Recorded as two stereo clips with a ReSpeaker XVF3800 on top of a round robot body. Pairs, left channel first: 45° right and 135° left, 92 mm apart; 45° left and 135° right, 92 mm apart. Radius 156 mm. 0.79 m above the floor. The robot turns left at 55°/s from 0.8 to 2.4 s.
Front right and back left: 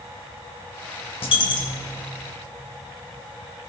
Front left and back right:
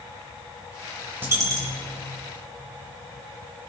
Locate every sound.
1.2 s a dropped coin: 65° right, 2.5 m; by 1.9 s 100° right, 2.5 m